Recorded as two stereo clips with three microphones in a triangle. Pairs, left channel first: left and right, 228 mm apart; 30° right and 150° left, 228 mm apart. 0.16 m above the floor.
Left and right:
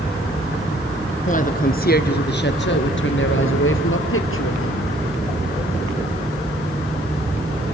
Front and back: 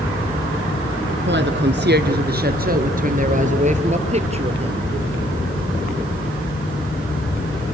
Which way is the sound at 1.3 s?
135° left.